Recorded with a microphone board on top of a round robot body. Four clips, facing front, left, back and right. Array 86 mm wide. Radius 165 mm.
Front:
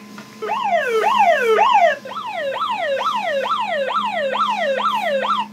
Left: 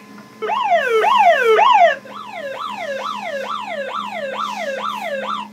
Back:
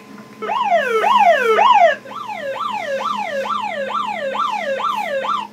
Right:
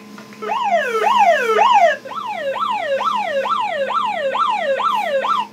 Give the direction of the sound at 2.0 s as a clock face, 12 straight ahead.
1 o'clock.